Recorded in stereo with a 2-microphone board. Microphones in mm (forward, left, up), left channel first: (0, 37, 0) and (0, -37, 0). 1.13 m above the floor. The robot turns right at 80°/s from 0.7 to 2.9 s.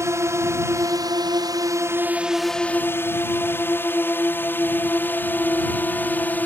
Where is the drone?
40° right (ahead or behind); by 6.5 s 25° left (ahead or behind).